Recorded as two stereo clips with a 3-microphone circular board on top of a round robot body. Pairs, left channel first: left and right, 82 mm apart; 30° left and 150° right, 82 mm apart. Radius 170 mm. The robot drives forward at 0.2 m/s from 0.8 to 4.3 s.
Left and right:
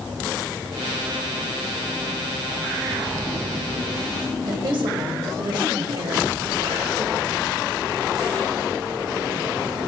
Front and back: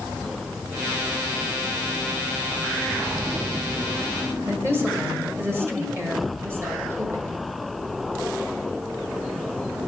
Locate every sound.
4.5 s a woman speaking: 90° right, 1.7 m